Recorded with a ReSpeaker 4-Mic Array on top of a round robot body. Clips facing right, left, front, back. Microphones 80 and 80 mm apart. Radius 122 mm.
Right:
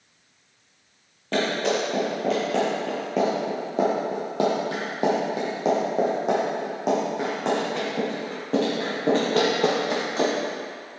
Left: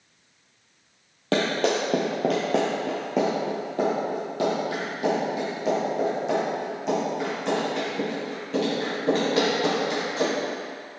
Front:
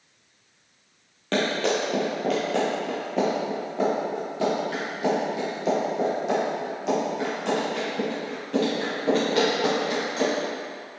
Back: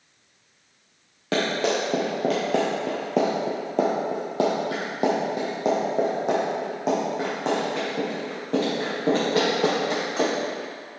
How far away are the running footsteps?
About 1.8 m.